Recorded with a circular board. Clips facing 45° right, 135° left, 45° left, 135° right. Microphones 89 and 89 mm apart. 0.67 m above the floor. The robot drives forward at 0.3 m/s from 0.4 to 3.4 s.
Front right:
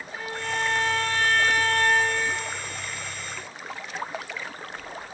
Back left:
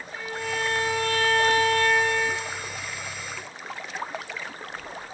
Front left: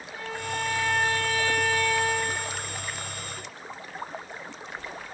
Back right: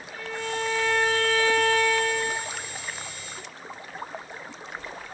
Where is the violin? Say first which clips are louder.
Even, back right 2 dB; 5° right, 1.5 m; by 2.4 s 10° right, 1.0 m.